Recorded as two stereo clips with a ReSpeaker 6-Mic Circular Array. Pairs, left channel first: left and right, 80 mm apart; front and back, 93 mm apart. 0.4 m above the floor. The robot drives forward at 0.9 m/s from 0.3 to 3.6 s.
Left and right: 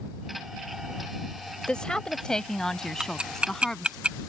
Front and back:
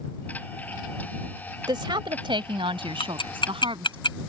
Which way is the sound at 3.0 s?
10° right.